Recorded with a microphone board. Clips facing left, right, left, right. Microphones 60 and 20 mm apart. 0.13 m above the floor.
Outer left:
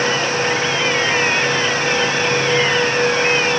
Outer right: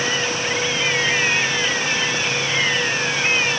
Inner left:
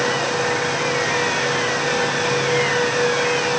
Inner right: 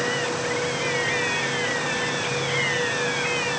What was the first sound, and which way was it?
Only background noise.